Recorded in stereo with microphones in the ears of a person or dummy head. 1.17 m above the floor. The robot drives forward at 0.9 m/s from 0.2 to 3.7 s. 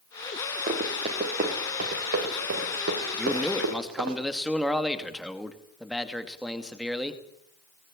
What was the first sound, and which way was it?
Running footsteps, 35° right (ahead or behind).